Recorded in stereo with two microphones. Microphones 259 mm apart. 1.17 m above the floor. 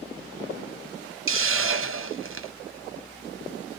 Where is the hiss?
55° right (ahead or behind), 0.5 m.